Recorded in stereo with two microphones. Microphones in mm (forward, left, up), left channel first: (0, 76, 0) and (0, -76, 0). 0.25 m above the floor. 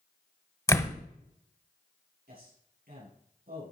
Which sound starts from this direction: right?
A man speaking, at 2.3 s.